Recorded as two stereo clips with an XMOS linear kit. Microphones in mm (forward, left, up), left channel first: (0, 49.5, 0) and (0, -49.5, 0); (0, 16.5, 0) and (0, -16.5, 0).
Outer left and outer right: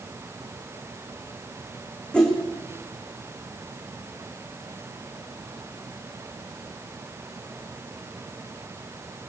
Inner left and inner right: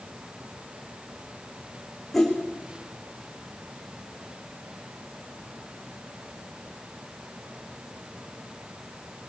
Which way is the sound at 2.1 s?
10° left (ahead or behind).